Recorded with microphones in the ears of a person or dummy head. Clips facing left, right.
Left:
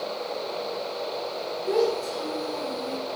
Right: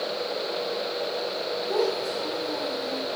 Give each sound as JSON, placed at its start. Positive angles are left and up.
{"t": 1.7, "sound": "a child speaking", "side_deg": 75, "distance_m": 5.5}